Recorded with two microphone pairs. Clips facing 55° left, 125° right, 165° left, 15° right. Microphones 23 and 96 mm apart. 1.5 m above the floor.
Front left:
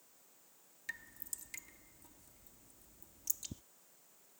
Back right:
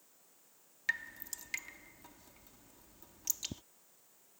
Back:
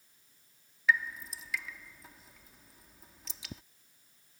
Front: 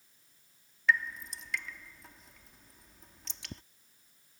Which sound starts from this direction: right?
Dripping, at 0.9 s.